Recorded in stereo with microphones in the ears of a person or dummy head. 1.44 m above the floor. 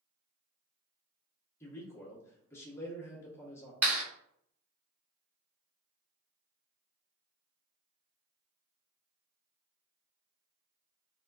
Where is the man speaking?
15° left (ahead or behind), 1.2 m.